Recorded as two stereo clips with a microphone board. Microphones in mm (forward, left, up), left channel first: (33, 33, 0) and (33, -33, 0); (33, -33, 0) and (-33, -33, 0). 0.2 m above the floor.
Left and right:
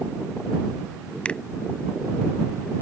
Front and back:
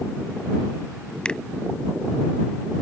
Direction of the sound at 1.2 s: 50° left.